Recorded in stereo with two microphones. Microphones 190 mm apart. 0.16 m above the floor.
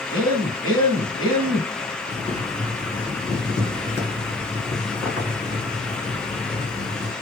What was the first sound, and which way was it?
A man speaking, 25° left (ahead or behind).